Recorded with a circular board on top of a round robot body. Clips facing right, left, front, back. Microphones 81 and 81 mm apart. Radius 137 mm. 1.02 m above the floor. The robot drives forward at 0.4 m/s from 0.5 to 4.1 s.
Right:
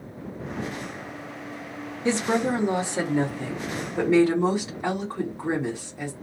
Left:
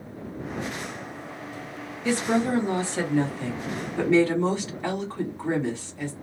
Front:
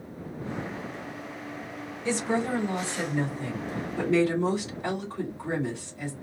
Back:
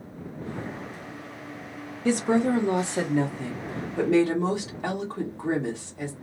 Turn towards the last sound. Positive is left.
turn(degrees=-170)